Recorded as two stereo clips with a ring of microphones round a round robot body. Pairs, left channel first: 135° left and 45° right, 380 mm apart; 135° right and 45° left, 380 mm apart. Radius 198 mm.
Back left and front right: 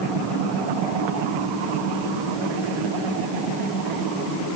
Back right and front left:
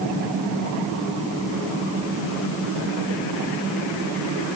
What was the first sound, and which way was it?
Only background noise.